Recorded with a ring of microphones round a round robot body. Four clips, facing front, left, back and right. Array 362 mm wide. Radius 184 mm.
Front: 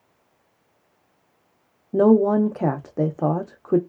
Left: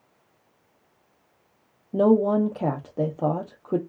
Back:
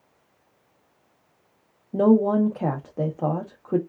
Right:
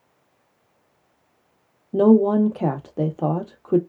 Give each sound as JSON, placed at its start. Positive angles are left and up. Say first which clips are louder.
{"t": 1.9, "sound": "a woman speaking", "louder": "right 4 dB, front 2 dB", "azimuth_deg": -30, "distance_m": 0.6}